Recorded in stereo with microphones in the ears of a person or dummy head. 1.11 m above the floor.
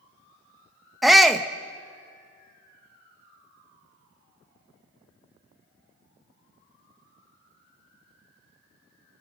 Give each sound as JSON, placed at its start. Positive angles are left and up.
{"t": 1.0, "sound": "a shout", "side_deg": 0, "distance_m": 0.8}